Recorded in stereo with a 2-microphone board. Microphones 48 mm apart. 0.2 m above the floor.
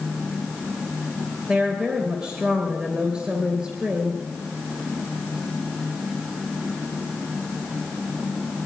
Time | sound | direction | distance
1.5 | a woman speaking | 25° right (ahead or behind) | 3 m